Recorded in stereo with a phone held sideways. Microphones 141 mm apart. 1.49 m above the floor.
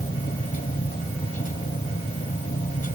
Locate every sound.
0.0 s a machine running: 75° left (ahead or behind)